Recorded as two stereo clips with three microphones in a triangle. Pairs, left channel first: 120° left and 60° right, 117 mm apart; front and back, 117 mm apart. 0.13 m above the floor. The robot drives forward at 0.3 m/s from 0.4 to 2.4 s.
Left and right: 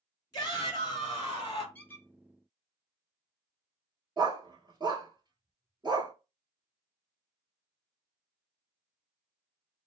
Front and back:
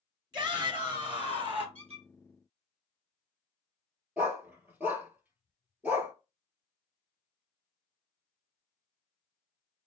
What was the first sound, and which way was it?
A shout, 155° left.